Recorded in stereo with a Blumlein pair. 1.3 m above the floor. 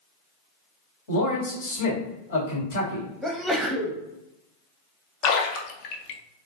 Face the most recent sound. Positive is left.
turn(degrees=40)